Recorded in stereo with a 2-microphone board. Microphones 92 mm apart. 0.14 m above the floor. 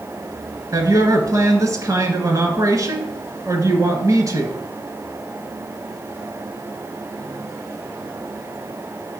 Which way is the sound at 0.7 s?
40° right (ahead or behind).